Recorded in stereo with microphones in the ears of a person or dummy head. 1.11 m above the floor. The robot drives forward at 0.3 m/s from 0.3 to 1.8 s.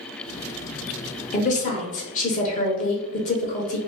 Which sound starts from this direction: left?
A woman speaking, at 1.3 s.